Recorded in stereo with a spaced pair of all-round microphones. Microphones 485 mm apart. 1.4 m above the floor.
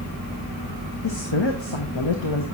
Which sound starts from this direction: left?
A woman speaking, at 1.0 s.